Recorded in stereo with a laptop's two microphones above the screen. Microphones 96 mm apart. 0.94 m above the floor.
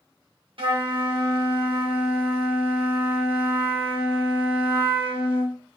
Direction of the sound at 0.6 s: 70° right (ahead or behind).